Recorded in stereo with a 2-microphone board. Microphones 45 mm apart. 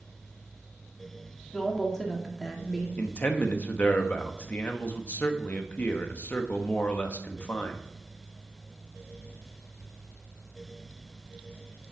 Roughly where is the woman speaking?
Centre.